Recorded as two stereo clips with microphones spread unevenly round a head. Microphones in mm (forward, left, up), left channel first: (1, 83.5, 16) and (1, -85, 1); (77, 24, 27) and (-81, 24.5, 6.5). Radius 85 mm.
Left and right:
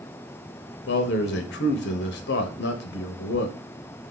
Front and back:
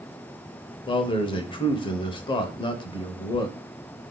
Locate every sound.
0.9 s a man speaking: 60° left, 0.8 m